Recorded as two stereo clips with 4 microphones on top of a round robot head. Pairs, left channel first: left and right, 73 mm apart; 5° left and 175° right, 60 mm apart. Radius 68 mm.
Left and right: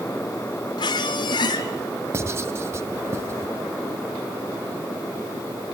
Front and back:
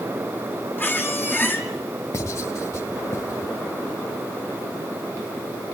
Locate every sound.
0.8 s a squeak: 65° left, 2 m
2.1 s writing: 40° right, 1.6 m